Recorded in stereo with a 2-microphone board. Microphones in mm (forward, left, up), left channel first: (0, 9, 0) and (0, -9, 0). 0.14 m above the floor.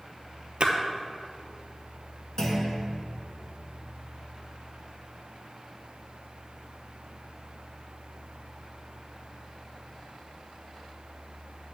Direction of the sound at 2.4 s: 35° left (ahead or behind).